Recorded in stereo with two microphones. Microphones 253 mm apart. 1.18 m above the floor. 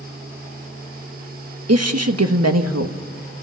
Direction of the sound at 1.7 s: 75° right (ahead or behind).